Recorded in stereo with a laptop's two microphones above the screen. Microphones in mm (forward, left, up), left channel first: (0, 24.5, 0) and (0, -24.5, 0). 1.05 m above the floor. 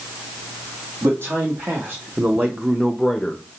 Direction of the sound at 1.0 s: 60° right (ahead or behind).